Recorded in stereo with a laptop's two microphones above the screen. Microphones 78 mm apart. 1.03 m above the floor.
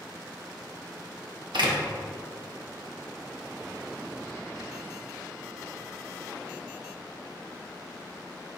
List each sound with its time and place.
1.5 s a door slam: 75° right (ahead or behind), 1.7 m